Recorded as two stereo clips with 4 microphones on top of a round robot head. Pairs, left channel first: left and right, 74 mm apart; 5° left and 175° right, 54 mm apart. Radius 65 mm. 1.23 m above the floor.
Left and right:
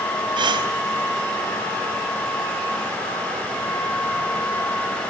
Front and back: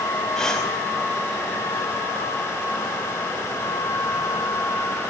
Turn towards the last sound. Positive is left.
turn(degrees=-80)